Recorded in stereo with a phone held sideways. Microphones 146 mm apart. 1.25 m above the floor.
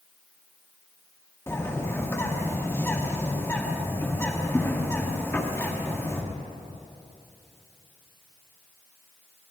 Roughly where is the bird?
Centre.